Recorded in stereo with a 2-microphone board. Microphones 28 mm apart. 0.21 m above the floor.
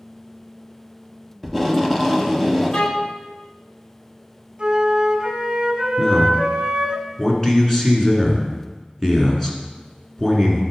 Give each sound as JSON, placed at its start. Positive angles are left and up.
{"t": 1.4, "sound": "tape being pulled", "side_deg": 5, "distance_m": 0.9}
{"t": 2.7, "sound": "a violin", "side_deg": 35, "distance_m": 1.3}
{"t": 4.6, "sound": "a flute", "side_deg": -30, "distance_m": 1.3}
{"t": 6.0, "sound": "a man speaking", "side_deg": 15, "distance_m": 2.0}